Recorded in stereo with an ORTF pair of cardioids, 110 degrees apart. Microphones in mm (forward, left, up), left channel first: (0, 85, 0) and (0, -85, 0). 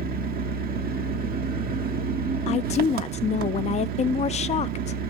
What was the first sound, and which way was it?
An engine running, 65° right.